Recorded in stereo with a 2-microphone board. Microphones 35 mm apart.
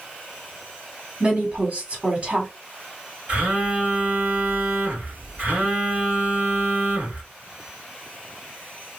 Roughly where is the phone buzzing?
Right.